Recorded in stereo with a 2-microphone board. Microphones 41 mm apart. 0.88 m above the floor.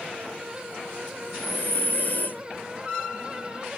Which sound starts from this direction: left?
Breathing, at 1.2 s.